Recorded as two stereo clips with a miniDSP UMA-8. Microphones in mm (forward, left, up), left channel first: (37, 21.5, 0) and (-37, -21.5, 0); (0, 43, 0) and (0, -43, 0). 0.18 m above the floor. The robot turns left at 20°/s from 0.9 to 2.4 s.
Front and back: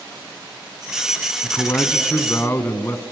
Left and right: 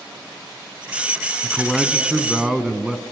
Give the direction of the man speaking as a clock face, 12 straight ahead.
12 o'clock.